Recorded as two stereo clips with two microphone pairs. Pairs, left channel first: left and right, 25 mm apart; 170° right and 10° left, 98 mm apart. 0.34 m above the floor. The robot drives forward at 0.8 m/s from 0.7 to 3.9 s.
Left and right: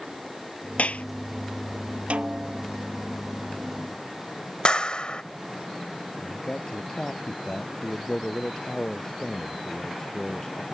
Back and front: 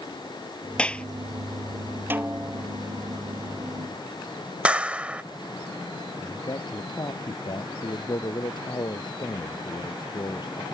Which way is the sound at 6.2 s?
150° left.